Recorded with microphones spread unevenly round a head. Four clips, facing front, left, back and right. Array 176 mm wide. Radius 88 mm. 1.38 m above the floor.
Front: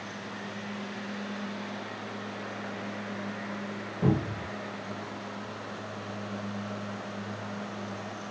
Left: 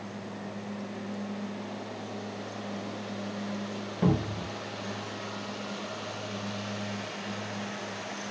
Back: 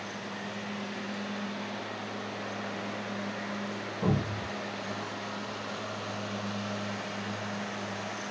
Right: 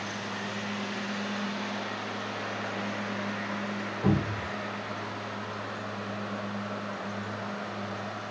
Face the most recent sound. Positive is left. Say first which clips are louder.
# even, front 3 dB
turn(degrees=70)